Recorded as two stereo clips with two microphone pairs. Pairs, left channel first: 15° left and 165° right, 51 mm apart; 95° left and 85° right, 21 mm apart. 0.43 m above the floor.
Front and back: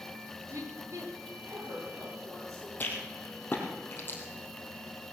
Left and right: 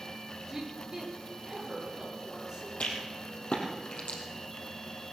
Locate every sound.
0.5 s a woman speaking: 155° right, 8.5 m
2.8 s a rattle: 70° left, 3.5 m